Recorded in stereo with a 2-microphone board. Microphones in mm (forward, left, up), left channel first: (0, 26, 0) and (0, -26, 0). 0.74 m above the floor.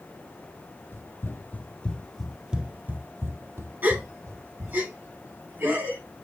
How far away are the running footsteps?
About 1.7 m.